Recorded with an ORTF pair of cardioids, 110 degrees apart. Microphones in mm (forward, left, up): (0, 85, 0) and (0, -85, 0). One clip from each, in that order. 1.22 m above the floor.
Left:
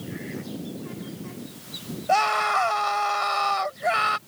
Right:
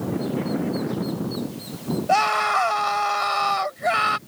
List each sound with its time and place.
2.1 s a scream: 10° right